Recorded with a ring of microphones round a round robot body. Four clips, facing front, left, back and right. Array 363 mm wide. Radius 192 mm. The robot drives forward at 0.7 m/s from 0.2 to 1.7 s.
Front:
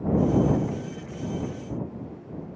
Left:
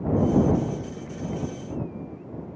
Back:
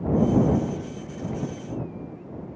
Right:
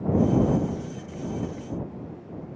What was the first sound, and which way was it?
Only background noise.